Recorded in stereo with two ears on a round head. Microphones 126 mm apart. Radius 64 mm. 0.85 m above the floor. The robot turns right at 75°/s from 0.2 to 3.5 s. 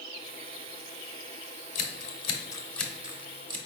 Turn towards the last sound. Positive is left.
turn(degrees=-30)  # may be behind; listen again after turning